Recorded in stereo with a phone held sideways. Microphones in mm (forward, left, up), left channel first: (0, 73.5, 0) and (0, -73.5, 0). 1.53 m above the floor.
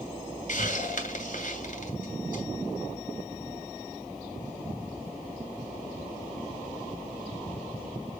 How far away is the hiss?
About 2.5 m.